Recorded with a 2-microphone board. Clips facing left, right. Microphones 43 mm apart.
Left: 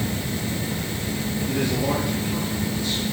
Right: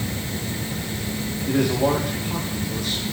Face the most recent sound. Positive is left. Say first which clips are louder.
# right 5 dB
turn(degrees=-70)  # may be behind; listen again after turning